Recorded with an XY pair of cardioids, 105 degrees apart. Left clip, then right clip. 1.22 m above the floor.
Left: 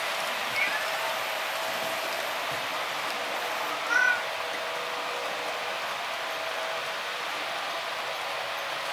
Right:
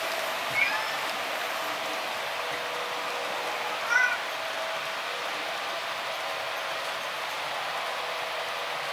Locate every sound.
0.5 s a cat meowing: 30° right, 10 m; by 4.2 s 20° right, 10 m